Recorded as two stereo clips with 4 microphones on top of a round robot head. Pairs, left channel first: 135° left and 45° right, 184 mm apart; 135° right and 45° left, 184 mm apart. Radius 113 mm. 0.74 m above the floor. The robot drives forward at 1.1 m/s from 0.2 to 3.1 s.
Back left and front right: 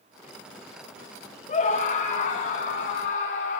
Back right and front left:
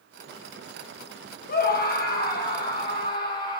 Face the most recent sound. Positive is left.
turn(degrees=-175)